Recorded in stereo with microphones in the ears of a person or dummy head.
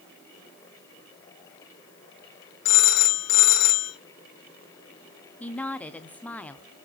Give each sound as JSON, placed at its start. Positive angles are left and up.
{"t": 2.6, "sound": "a phone ringing", "side_deg": 55, "distance_m": 1.7}
{"t": 5.4, "sound": "a woman speaking", "side_deg": 10, "distance_m": 0.6}